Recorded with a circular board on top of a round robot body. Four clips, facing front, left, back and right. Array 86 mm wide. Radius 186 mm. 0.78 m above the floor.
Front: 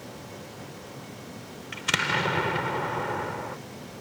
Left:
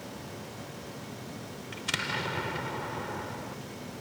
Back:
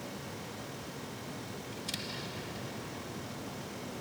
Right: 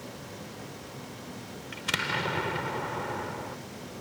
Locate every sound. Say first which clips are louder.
1.7 s an explosion: right 3 dB, front 19 dB; 10° right